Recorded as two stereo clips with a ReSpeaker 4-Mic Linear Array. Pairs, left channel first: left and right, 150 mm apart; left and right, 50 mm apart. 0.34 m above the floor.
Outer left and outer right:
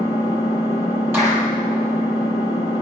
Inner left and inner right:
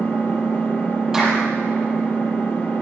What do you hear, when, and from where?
0.0 s an engine running: 25° left (ahead or behind), 4 m
1.1 s a clap: 15° right (ahead or behind), 6.5 m